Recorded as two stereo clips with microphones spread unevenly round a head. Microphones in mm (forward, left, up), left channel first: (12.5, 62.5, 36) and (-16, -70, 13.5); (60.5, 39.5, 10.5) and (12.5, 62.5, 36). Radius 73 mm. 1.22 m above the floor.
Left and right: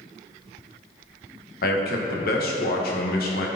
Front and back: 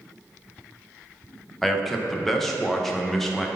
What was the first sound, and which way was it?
A man speaking, 55° left.